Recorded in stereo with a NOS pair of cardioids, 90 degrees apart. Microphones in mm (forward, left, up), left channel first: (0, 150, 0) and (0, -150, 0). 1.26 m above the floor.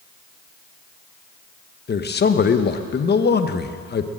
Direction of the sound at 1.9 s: 35° left.